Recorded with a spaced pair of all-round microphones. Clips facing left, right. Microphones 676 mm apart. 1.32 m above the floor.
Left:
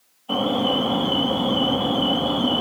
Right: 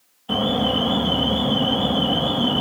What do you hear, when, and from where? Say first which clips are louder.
0.3 s an alarm: even; 45° right (ahead or behind), 2 m